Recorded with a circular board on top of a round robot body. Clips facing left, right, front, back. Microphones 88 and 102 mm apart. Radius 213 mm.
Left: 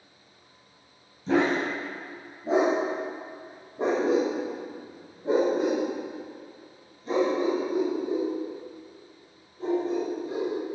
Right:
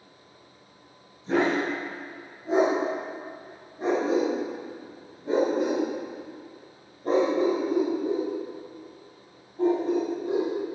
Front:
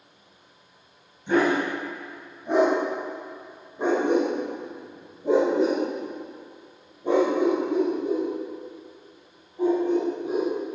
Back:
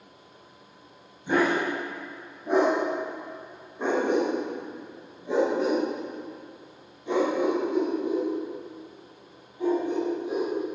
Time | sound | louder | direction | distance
1.3 | a dog barking | even, front 2 dB | 95° left | 2.5 m